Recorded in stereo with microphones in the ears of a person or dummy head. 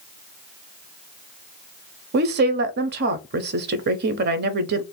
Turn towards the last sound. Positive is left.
turn(degrees=-55)  # may be behind; listen again after turning